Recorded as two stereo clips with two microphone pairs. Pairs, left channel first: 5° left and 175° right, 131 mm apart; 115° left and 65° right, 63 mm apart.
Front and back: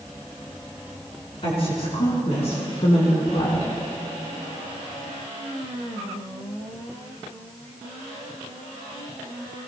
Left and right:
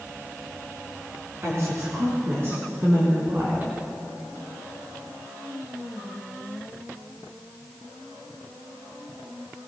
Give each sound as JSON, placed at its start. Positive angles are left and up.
{"t": 1.4, "sound": "a woman speaking", "azimuth_deg": -35, "distance_m": 4.0}